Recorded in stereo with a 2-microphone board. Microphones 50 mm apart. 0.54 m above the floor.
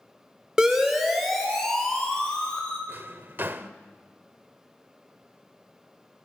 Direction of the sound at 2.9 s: 45° right (ahead or behind).